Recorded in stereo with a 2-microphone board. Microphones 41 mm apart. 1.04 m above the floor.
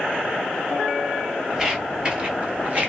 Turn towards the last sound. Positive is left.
turn(degrees=-35)  # may be behind; listen again after turning